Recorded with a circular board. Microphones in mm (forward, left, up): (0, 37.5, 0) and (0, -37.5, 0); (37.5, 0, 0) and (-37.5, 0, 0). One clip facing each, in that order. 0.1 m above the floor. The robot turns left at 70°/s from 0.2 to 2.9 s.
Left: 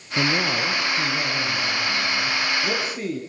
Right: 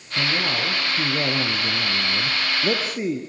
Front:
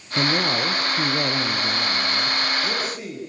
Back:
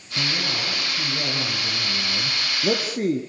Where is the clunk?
No clunk in this recording.